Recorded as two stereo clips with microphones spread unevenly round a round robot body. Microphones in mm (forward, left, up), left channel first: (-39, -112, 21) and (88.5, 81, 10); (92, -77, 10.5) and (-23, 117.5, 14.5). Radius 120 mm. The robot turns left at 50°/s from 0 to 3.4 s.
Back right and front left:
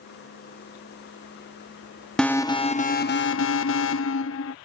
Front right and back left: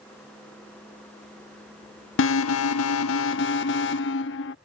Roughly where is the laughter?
No laughter in this recording.